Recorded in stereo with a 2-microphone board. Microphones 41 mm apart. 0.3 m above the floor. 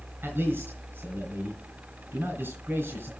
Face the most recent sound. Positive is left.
turn(degrees=-70)  # may be behind; listen again after turning